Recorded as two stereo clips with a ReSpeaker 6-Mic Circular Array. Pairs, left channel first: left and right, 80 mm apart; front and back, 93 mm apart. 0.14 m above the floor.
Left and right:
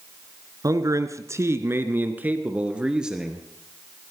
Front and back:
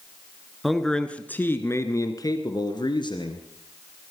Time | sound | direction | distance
0.6 | a man speaking | 90° right | 1.5 m